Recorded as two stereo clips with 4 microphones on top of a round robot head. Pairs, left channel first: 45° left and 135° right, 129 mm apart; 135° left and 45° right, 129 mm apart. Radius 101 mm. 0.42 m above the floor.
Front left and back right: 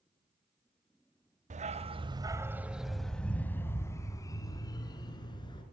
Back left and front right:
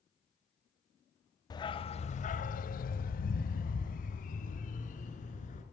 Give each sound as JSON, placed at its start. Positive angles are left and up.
{"t": 1.5, "sound": "a dog barking", "azimuth_deg": -165, "distance_m": 0.9}